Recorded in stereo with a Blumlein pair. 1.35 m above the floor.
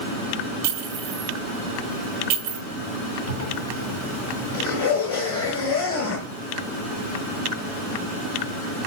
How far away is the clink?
About 3 m.